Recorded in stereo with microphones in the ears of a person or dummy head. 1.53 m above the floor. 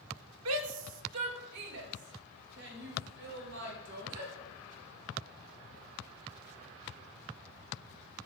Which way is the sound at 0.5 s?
90° right.